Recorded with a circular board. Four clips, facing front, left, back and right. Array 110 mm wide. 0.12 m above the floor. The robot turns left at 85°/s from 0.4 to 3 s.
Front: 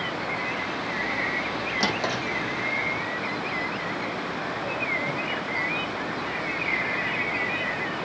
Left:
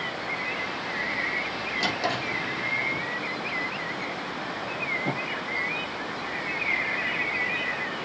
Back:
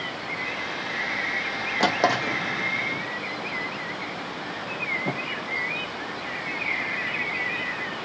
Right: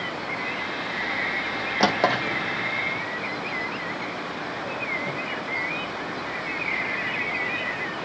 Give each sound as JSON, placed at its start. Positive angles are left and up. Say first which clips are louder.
{"t": 1.8, "sound": "a drawer", "louder": "right 8 dB, back 7 dB", "azimuth_deg": -110, "distance_m": 1.4}